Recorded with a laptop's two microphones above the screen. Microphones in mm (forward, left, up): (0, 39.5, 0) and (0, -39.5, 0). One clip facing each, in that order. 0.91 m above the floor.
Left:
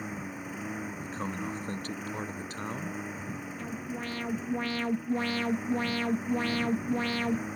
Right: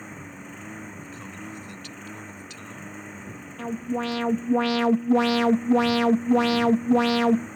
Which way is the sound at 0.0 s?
5° left (ahead or behind).